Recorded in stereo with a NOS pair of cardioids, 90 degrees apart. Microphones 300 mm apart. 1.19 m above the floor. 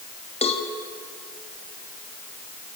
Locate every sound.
0.4 s a cowbell: 20° left, 3 m